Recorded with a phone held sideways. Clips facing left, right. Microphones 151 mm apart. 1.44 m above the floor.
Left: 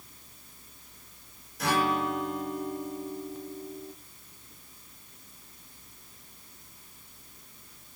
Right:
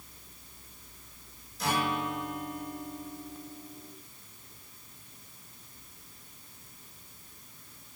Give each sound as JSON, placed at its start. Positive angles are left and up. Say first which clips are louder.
{"t": 1.6, "sound": "a guitar", "louder": "left 3 dB", "side_deg": 65, "distance_m": 5.0}